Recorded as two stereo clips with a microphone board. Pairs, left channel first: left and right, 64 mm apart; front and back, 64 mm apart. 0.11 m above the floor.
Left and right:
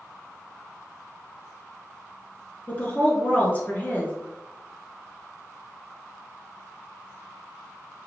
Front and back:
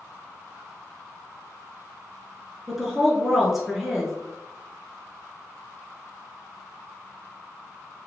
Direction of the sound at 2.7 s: 105° left.